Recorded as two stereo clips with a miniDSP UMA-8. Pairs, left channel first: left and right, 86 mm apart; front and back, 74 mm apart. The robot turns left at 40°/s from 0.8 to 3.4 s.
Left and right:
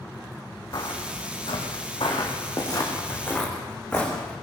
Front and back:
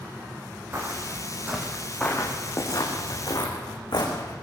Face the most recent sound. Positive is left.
turn(degrees=15)